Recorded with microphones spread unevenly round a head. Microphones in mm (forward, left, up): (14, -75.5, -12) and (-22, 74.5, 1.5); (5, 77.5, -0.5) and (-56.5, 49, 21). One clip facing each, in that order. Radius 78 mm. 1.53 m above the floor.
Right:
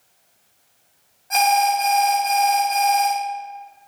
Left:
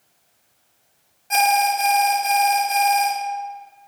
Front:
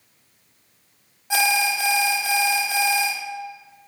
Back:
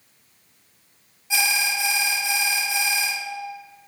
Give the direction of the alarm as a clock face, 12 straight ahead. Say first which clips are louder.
Right 1 dB, front 4 dB; 11 o'clock.